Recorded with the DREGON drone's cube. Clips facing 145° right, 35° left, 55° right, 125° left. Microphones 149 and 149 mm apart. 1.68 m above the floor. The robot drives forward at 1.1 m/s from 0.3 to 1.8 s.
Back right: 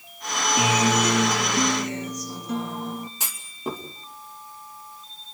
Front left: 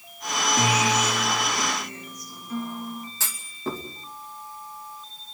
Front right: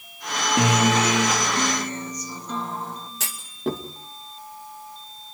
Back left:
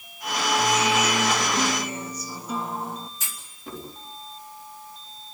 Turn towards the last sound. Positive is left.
turn(degrees=-75)